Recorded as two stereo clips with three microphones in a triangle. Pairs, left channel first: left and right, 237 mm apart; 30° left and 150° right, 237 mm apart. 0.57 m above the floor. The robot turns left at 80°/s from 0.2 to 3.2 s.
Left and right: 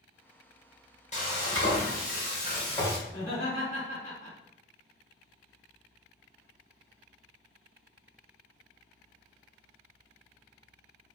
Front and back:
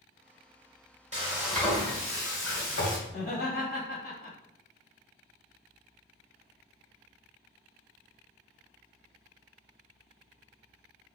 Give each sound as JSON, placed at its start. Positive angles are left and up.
{"t": 1.1, "sound": "frying", "azimuth_deg": 150, "distance_m": 1.2}
{"t": 3.1, "sound": "laughter", "azimuth_deg": 50, "distance_m": 1.4}